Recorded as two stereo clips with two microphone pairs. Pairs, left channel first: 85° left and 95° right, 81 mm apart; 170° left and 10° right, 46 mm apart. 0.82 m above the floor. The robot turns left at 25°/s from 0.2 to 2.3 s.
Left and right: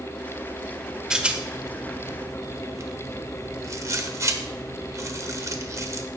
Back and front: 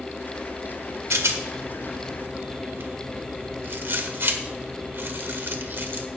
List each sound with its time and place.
1.1 s a rattle: 15° right, 1.3 m; by 6.1 s 45° right, 1.3 m